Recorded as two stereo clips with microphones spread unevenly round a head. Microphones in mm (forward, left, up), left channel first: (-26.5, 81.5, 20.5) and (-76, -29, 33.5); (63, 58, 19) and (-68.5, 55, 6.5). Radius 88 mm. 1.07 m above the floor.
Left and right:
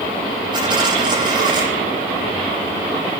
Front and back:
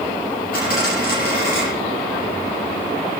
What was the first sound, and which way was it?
A dropped coin, 45° right.